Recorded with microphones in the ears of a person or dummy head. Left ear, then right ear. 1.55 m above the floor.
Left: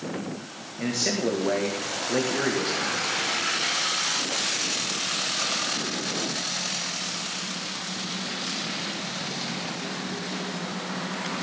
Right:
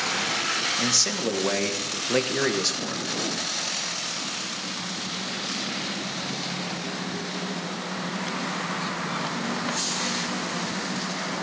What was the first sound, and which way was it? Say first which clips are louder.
A man speaking: right 4 dB; 90° right.